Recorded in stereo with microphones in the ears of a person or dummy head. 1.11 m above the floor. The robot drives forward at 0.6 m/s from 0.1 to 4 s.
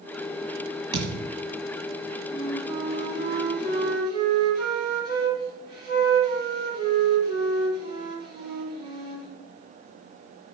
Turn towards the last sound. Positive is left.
turn(degrees=-50)  # may be behind; listen again after turning